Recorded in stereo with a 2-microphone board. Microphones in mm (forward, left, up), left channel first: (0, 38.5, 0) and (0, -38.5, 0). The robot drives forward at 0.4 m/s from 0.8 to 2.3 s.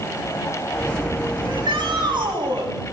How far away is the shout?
About 8.5 m.